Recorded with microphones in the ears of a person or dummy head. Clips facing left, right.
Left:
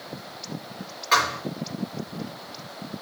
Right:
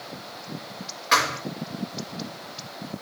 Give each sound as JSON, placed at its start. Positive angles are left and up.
{"t": 1.1, "sound": "a thud", "side_deg": -15, "distance_m": 4.0}